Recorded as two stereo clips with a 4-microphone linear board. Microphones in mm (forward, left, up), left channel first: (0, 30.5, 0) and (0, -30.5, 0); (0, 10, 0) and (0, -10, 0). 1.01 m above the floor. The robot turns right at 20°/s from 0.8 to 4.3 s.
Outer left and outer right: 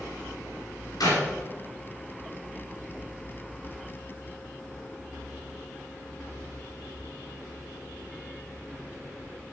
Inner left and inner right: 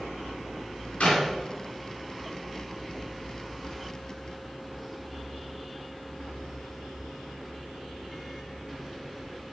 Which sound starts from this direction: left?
A clap, at 1.0 s.